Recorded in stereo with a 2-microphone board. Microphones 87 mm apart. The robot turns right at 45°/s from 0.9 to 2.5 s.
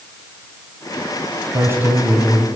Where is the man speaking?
40° right, 1.8 m; by 2.5 s straight ahead, 1.8 m.